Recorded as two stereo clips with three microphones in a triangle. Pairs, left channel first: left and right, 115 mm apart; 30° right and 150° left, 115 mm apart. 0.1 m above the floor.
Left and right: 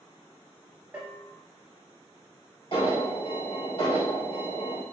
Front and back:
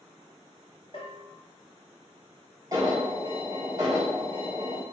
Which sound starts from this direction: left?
An alarm, at 2.7 s.